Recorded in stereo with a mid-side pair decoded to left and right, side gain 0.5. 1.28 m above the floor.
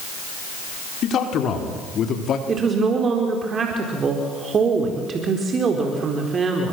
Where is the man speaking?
60° left, 4 m; by 2.4 s 55° left, 3 m.